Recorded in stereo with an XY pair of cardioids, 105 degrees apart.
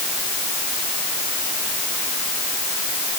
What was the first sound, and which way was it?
Only background noise.